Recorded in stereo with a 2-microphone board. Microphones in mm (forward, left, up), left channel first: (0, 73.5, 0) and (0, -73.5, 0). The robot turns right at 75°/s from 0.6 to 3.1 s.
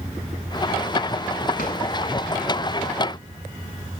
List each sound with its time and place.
1.6 s a drawer: 75° left (ahead or behind), 8 m; by 1.8 s 85° left, 8 m